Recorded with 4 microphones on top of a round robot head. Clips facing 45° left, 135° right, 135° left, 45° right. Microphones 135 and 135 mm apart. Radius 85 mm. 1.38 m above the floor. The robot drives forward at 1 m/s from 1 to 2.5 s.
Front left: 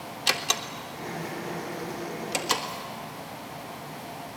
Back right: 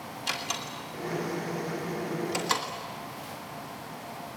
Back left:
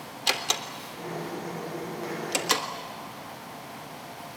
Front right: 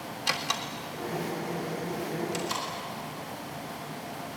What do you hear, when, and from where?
0.3 s a door slam: 70° left, 2.0 m; by 2.7 s 115° left, 2 m